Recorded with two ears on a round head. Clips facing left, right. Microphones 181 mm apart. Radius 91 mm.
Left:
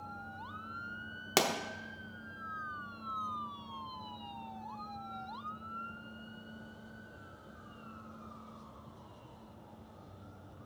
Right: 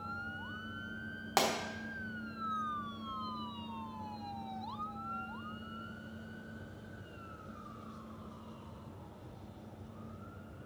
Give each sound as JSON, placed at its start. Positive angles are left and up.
{"t": 1.4, "sound": "a pop", "side_deg": 35, "distance_m": 0.8}